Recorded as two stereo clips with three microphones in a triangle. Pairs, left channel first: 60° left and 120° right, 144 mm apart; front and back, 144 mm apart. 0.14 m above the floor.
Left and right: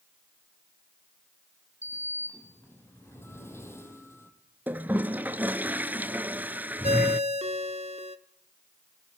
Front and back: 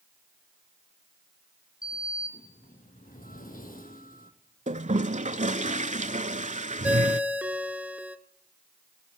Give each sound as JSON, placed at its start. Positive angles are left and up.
{"t": 1.8, "sound": "a sliding door", "azimuth_deg": -15, "distance_m": 3.0}
{"t": 4.7, "sound": "a toilet flushing", "azimuth_deg": 165, "distance_m": 0.6}
{"t": 6.8, "sound": "a ringtone", "azimuth_deg": -105, "distance_m": 0.9}